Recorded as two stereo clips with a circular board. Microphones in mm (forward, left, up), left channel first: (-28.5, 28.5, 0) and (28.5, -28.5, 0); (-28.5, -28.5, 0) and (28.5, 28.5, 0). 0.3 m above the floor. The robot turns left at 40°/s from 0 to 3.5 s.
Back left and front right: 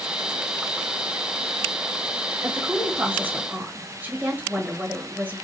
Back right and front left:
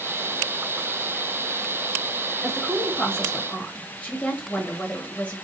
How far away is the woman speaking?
About 1.4 m.